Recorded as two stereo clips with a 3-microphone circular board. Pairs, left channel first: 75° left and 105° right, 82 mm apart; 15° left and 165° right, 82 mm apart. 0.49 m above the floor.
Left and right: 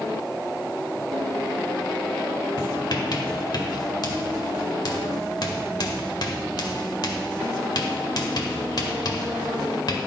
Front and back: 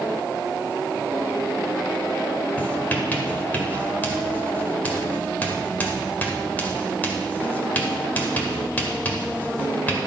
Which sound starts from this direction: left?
Writing, at 2.6 s.